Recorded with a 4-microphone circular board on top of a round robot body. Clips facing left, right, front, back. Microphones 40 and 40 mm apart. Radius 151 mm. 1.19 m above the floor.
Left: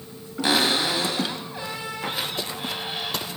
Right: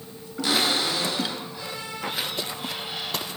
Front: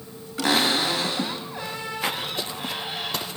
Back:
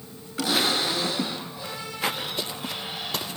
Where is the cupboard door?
15° left, 2 m.